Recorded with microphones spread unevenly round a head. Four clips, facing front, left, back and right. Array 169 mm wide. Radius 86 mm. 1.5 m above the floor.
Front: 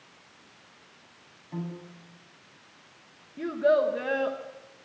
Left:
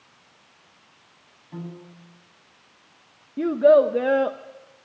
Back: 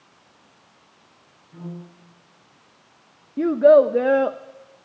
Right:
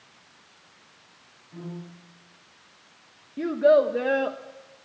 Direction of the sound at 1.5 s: 35° left.